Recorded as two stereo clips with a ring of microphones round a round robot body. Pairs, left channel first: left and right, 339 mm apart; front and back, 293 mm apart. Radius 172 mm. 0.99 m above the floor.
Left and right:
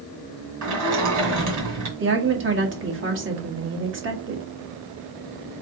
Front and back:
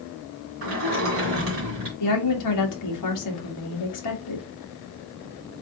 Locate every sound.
0.6 s a sliding door: 125° right, 1.9 m
2.0 s a woman speaking: 35° right, 1.5 m